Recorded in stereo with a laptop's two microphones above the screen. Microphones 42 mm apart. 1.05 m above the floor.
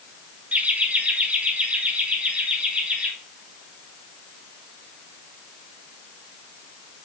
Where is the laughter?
30° right (ahead or behind), 1.2 m; by 3.1 s 25° right (ahead or behind), 3 m.